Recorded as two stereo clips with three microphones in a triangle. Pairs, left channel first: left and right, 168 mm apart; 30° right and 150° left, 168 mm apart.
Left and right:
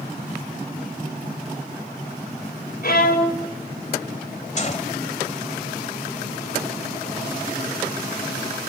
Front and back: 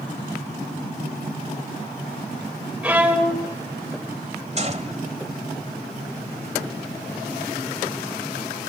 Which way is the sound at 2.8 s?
70° left.